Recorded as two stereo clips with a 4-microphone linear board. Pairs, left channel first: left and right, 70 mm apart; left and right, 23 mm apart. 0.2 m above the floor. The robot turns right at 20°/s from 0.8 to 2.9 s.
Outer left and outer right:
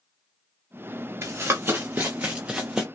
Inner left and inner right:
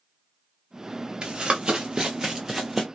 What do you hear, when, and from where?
1.2 s running footsteps: 35° right (ahead or behind), 1.1 m; by 2.8 s 5° right (ahead or behind), 0.7 m